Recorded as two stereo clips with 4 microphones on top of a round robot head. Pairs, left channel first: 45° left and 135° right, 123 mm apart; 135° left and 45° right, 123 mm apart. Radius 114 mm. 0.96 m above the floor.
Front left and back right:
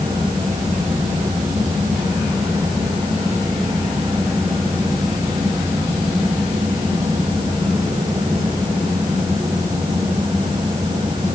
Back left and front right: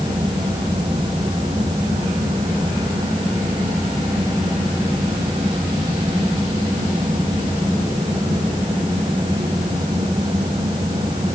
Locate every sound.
Only background noise.